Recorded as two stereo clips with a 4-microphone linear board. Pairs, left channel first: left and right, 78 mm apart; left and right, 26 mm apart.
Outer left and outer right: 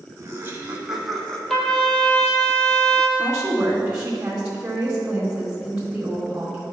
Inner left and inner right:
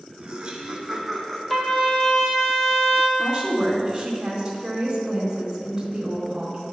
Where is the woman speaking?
15° right (ahead or behind), 1.5 m.